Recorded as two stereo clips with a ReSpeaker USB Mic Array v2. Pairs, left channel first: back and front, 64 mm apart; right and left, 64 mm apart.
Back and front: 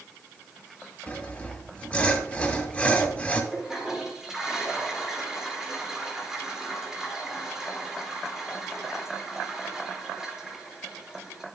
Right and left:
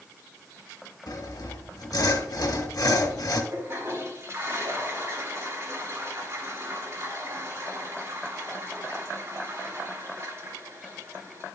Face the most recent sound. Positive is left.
turn(degrees=75)